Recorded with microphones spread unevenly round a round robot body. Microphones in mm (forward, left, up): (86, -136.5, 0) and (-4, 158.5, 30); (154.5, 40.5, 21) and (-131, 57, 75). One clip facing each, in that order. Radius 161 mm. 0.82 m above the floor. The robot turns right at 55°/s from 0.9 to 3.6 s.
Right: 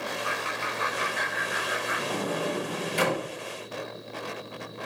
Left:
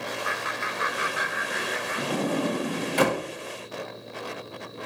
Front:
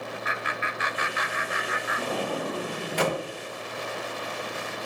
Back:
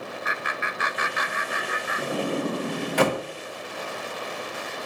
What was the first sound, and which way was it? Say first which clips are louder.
Laughter: even, back 1 dB; 175° left.